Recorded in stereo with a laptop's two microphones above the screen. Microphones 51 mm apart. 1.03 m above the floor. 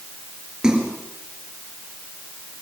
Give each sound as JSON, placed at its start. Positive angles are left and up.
{"t": 0.6, "sound": "a splash", "side_deg": -15, "distance_m": 3.5}